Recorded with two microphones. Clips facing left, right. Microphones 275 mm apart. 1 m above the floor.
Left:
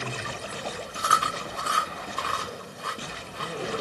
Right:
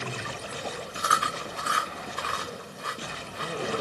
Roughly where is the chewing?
Right.